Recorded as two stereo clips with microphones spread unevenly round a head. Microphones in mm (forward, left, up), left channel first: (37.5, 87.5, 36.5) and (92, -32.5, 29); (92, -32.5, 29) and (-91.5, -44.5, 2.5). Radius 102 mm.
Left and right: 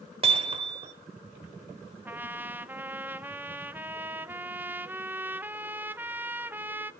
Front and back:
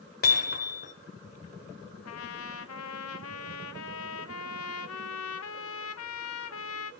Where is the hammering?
20° right, 2 m.